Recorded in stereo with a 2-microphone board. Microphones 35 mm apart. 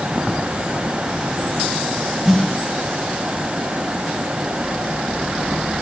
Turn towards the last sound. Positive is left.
turn(degrees=-10)  # may be behind; listen again after turning